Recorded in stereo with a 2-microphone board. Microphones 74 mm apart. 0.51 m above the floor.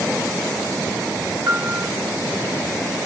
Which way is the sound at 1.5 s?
45° right (ahead or behind).